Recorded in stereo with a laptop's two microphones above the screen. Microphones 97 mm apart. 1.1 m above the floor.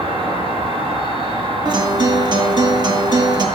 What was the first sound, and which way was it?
An insect, 70° right (ahead or behind).